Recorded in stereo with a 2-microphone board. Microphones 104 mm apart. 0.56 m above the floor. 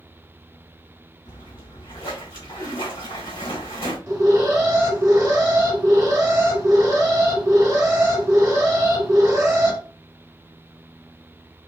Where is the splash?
65° left (ahead or behind), 2 m.